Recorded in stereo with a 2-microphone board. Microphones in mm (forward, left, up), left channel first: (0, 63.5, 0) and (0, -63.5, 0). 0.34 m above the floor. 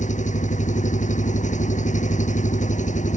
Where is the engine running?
75° left (ahead or behind).